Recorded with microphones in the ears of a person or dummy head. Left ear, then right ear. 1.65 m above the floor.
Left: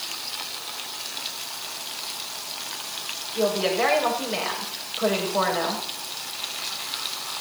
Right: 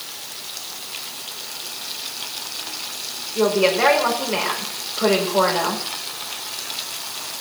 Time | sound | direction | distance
3.4 | a woman speaking | 5° right (ahead or behind) | 5.5 m